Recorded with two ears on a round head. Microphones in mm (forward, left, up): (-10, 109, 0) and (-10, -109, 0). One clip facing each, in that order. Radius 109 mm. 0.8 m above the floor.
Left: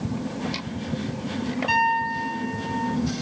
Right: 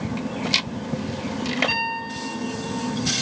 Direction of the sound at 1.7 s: 15° right (ahead or behind).